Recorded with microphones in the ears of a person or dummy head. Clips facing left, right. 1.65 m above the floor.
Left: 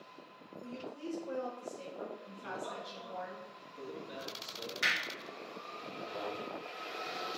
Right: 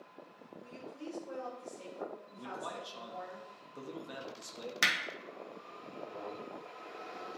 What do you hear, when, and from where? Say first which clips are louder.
0.6 s a woman speaking: left 3 dB; 40° left (ahead or behind), 3 m
2.4 s a man speaking: even; 75° right (ahead or behind), 1.1 m
4.8 s hammering: right 3 dB; 70° right (ahead or behind), 1.0 m